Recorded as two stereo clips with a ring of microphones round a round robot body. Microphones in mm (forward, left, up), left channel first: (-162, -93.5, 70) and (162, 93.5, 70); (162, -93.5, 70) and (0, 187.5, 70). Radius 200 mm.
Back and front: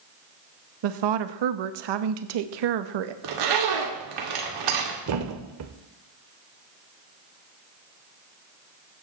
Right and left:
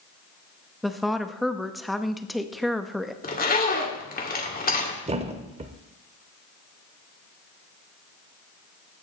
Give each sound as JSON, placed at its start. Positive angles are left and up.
{"t": 0.8, "sound": "a woman speaking", "azimuth_deg": 30, "distance_m": 0.8}
{"t": 3.2, "sound": "a zipper", "azimuth_deg": 5, "distance_m": 2.5}
{"t": 5.1, "sound": "a thud", "azimuth_deg": 55, "distance_m": 0.6}